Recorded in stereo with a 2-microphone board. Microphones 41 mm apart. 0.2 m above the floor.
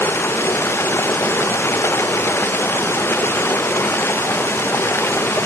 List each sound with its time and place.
0.0 s running water: 90° left